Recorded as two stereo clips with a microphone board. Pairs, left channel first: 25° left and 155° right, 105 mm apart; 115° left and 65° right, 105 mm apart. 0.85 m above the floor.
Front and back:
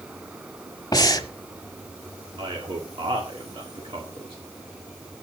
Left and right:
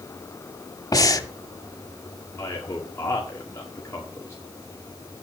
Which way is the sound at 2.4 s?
175° left.